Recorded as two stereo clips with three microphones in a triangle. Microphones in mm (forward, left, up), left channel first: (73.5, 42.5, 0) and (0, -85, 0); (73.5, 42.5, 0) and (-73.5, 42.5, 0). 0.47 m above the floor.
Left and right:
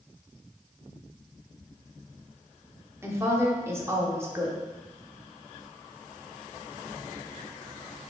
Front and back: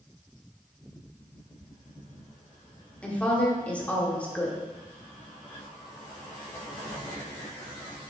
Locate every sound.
3.0 s a woman speaking: 70° right, 0.7 m